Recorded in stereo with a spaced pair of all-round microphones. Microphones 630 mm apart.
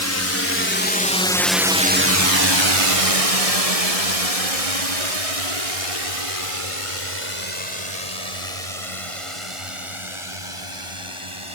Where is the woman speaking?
No woman speaking in this recording.